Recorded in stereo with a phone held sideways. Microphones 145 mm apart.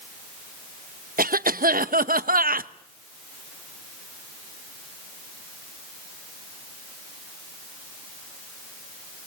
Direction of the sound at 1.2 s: 90° right.